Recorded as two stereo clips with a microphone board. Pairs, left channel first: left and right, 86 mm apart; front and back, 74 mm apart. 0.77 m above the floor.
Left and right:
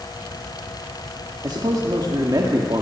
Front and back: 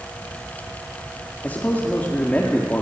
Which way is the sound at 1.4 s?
65° right.